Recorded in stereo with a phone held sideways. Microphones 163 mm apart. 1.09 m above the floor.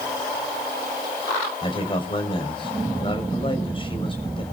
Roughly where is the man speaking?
Left.